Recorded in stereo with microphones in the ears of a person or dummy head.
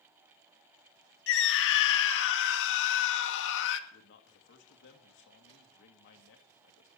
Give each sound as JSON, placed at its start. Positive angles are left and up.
{"t": 1.3, "sound": "a scream", "side_deg": 70, "distance_m": 2.0}
{"t": 3.9, "sound": "a man speaking", "side_deg": 65, "distance_m": 2.5}